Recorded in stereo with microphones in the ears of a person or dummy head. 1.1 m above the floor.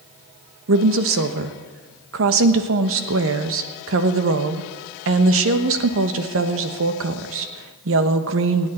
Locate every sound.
0.7 s a woman speaking: 70° right (ahead or behind), 1.1 m